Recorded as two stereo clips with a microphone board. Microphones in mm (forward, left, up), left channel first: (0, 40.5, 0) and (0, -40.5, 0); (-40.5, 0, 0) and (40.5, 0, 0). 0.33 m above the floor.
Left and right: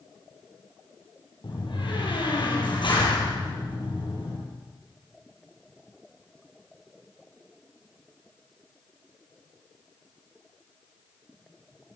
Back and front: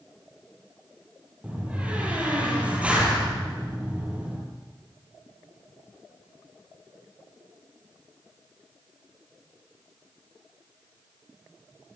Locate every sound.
1.4 s a door slam: 75° left, 7.5 m